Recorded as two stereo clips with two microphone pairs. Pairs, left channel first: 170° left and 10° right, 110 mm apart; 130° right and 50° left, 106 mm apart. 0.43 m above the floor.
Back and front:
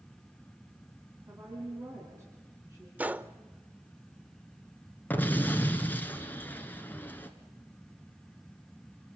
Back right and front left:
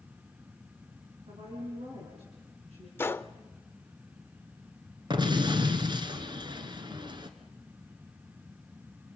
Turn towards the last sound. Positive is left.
turn(degrees=95)